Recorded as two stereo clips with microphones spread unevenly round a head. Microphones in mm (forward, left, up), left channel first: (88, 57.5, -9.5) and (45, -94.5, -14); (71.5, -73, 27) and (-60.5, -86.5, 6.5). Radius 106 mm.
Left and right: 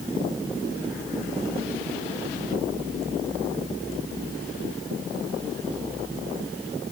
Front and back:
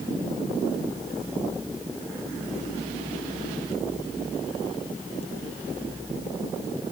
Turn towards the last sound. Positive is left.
No sound to turn to.